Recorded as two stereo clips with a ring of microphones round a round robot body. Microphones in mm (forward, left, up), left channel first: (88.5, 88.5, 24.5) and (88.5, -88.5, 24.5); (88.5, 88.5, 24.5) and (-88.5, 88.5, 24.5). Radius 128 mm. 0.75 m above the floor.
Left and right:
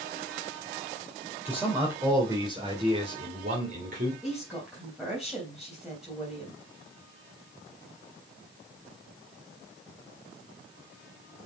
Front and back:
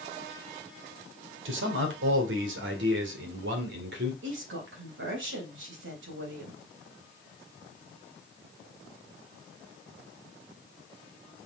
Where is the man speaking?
175° right, 3 m; by 4.1 s 140° right, 2.5 m.